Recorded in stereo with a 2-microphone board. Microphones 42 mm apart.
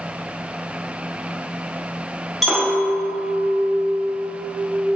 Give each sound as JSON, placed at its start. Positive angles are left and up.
{"t": 2.4, "sound": "a clink", "side_deg": -5, "distance_m": 0.9}